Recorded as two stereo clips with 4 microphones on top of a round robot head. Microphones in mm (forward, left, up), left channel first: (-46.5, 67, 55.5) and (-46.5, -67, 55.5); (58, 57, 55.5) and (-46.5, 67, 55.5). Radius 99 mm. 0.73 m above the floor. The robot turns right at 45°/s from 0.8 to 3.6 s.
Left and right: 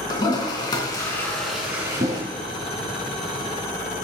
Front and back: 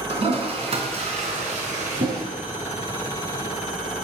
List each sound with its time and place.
0.1 s a toilet flushing: 145° left, 3 m; by 2.2 s 150° right, 3 m